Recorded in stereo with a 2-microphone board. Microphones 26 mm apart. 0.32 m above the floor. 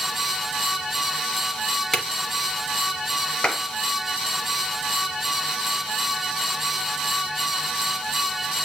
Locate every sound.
1.9 s a drawer: 25° left (ahead or behind), 1.5 m
3.4 s a clap: 35° left (ahead or behind), 5 m